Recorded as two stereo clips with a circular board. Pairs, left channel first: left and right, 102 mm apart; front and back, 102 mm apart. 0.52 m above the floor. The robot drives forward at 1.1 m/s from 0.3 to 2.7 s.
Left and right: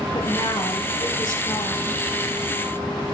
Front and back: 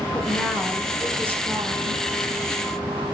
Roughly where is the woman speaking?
Left.